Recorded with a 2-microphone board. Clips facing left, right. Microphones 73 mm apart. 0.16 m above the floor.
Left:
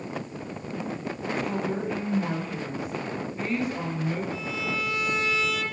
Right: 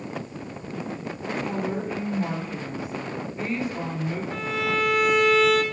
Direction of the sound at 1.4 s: 5° right (ahead or behind).